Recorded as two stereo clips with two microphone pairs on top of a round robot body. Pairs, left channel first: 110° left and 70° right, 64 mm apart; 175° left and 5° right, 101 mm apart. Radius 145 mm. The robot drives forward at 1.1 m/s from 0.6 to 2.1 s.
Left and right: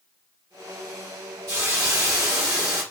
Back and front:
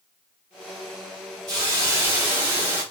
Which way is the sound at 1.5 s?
55° right.